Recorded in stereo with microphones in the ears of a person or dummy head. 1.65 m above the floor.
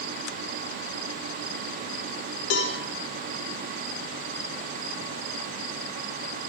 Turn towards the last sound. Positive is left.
turn(degrees=75)  # may be behind; listen again after turning